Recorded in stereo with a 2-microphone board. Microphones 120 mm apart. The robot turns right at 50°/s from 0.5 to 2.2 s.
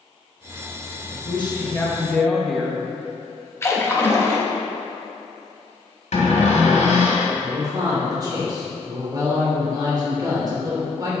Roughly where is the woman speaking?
Behind left.